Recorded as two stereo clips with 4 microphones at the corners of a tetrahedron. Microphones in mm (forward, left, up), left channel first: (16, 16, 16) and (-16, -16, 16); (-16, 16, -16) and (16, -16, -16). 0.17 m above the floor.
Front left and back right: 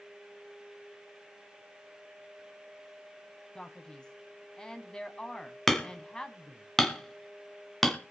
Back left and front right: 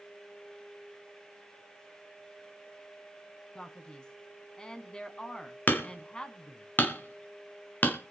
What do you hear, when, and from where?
3.5 s a man speaking: 90° left, 1.3 m
5.7 s hammering: 125° left, 1.4 m